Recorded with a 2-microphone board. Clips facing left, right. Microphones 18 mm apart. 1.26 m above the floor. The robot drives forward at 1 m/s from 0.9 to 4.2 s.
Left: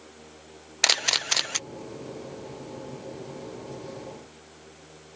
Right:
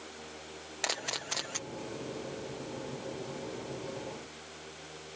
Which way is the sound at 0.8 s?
80° left.